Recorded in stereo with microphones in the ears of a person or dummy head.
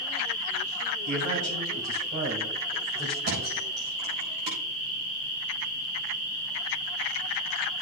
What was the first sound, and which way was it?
A man speaking, 85° right.